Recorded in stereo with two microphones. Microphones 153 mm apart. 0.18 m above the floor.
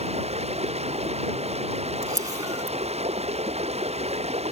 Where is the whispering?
I don't hear whispering.